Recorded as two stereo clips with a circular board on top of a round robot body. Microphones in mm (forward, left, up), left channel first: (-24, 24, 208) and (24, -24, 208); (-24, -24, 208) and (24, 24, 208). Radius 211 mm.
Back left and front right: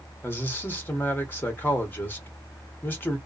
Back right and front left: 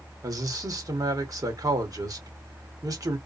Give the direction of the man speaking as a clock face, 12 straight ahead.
10 o'clock.